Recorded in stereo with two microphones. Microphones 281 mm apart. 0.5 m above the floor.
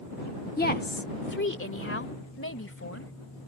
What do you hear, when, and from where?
0.6 s a woman speaking: 30° left (ahead or behind); by 3.1 s 55° left (ahead or behind)